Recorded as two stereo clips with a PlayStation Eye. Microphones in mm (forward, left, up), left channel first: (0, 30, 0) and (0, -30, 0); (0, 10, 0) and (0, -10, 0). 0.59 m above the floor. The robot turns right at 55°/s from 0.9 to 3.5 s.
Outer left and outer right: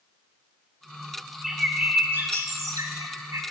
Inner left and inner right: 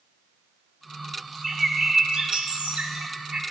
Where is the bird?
175° right, 1.0 m; by 3.4 s 65° right, 1.0 m.